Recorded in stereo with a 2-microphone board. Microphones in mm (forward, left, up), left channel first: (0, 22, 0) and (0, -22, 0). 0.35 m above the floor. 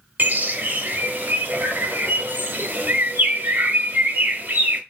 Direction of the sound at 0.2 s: 45° right (ahead or behind).